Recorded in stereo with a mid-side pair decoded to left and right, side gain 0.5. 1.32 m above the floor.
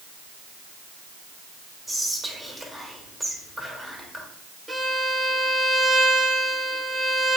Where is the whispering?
Straight ahead, 1.8 m.